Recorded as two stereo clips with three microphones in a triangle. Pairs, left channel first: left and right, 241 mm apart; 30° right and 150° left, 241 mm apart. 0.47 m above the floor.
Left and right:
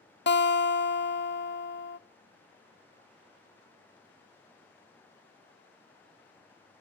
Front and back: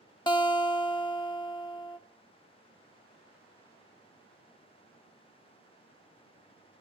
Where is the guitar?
40° left, 0.6 m.